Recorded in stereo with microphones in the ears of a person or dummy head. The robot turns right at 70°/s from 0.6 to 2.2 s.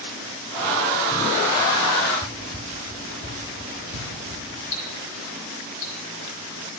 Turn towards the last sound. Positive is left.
turn(degrees=55)  # may be behind; listen again after turning